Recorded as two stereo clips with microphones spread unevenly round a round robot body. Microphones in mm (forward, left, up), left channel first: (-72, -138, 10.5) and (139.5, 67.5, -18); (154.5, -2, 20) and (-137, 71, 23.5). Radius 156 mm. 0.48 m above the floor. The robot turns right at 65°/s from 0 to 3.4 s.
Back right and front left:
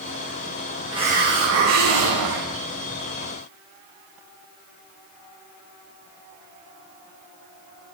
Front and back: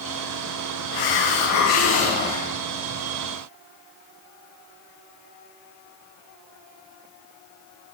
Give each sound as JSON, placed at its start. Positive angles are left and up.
{"t": 0.9, "sound": "a hiss", "azimuth_deg": -35, "distance_m": 9.0}